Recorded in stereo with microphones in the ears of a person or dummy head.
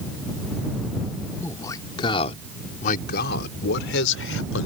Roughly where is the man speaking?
Centre.